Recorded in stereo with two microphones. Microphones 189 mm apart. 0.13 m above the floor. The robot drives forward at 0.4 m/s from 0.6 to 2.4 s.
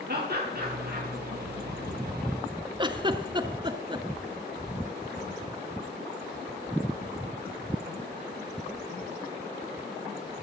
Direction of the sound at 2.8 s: 25° right (ahead or behind).